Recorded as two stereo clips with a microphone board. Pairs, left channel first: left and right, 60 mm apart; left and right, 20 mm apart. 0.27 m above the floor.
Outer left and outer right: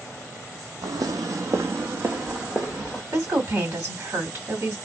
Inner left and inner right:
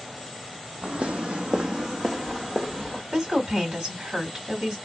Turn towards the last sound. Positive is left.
turn(degrees=-45)  # may be behind; listen again after turning